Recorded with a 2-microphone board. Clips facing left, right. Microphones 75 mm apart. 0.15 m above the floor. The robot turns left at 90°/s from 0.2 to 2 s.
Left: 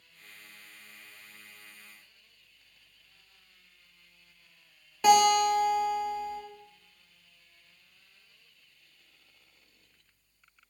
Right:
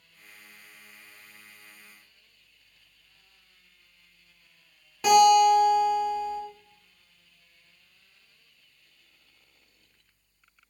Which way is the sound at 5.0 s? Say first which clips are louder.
Right 4 dB; centre (ahead or behind).